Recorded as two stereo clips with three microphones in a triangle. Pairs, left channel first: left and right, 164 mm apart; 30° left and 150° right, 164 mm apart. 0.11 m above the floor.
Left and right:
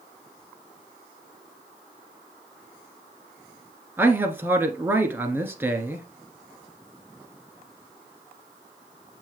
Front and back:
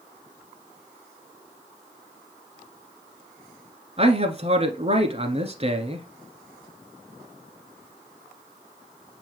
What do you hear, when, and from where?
4.0 s a man speaking: 160° right, 1.4 m